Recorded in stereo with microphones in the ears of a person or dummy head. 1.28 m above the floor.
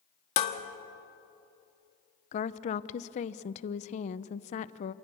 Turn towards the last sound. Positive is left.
turn(degrees=40)  # may be behind; listen again after turning